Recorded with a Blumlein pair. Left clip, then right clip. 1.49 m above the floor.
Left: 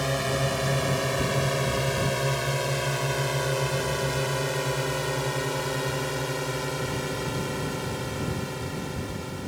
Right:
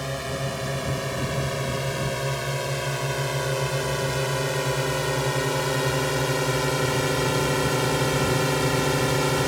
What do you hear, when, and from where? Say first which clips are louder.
0.0 s a drone: left 3 dB; 10° left; by 9.5 s 35° right